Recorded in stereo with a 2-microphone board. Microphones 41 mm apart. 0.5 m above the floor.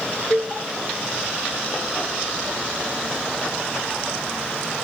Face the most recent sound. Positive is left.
turn(degrees=-50)  # may be behind; listen again after turning